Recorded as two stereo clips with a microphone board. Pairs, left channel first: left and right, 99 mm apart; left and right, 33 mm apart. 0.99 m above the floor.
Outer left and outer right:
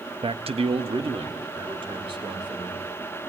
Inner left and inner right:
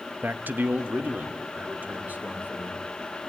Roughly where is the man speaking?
Right.